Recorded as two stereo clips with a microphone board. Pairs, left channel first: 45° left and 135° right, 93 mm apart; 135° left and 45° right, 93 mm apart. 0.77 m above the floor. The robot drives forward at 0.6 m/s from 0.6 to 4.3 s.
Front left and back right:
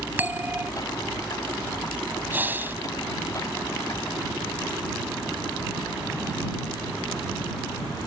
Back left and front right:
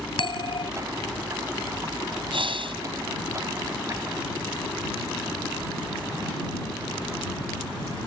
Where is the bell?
155° left.